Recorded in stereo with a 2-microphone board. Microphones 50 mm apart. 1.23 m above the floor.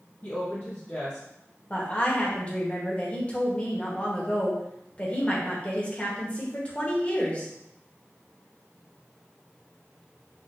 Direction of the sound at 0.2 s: 35° left (ahead or behind).